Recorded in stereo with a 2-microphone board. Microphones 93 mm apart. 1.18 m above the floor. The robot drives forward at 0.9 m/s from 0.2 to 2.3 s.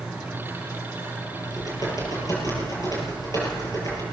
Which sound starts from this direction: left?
Typing on a keyboard, at 1.4 s.